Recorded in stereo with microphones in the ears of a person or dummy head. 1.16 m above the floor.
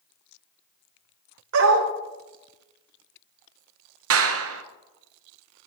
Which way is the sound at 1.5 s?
65° right (ahead or behind).